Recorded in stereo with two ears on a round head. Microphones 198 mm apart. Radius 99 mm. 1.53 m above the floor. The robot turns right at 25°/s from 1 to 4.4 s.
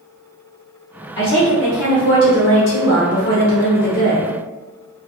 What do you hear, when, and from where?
1.2 s a woman speaking: 60° left, 0.9 m; by 4.3 s 135° left, 0.9 m